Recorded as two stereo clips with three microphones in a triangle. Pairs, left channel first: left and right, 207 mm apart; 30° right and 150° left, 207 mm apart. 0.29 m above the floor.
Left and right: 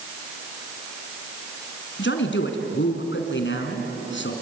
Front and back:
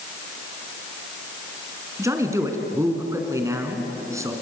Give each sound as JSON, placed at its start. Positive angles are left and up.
{"t": 2.0, "sound": "a man speaking", "azimuth_deg": 75, "distance_m": 3.5}